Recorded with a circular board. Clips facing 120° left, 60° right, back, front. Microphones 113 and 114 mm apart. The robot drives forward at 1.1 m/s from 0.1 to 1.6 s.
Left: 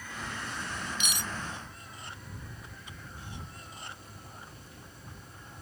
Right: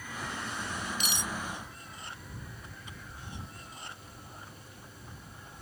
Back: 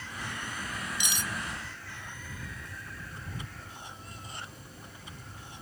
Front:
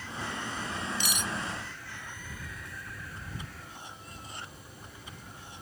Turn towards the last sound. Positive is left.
turn(degrees=-150)